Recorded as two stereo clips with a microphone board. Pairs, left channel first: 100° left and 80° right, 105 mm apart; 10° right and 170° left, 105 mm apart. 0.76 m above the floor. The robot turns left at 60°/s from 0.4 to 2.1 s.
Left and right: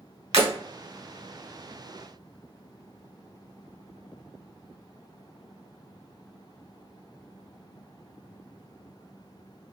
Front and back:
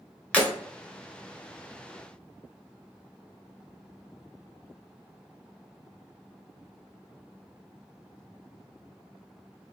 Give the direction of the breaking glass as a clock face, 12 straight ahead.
3 o'clock.